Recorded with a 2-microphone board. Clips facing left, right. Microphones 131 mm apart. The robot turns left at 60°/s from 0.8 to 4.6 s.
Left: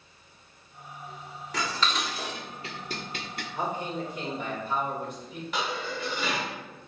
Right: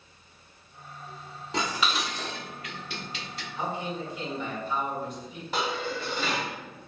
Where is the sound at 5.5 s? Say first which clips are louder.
Right 2 dB; 35° right (ahead or behind), 1.6 m.